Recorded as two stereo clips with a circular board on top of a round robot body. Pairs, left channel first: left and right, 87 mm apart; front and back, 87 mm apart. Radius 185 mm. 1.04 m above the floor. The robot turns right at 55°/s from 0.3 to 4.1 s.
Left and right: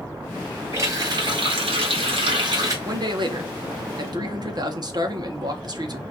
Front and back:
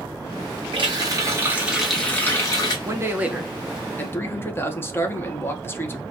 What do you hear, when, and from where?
0.7 s a running tap: 150° right, 0.8 m; by 2.8 s 40° right, 0.8 m
2.9 s a man speaking: 130° right, 0.9 m; by 6.0 s 60° right, 0.9 m